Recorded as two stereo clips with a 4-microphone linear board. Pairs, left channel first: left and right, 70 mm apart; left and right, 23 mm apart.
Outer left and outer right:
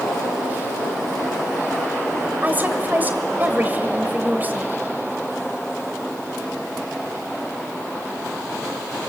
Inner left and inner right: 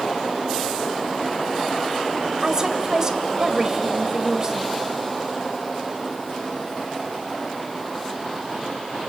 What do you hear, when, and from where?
2.4 s a woman speaking: 25° right (ahead or behind), 2 m